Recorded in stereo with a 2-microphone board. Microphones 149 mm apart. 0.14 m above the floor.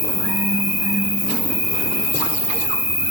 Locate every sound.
0.0 s an insect: 35° left (ahead or behind), 0.9 m